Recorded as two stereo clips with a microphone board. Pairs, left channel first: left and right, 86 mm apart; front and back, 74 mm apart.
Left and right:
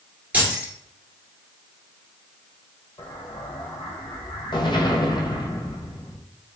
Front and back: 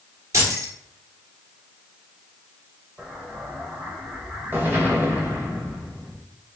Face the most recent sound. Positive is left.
turn(degrees=120)